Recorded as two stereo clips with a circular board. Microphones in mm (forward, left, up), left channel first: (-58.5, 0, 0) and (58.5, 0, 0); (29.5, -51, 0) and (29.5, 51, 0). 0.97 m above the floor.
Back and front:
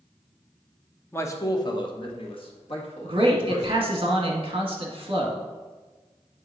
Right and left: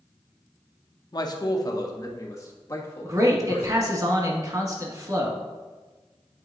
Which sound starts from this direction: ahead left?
A man speaking, at 3.0 s.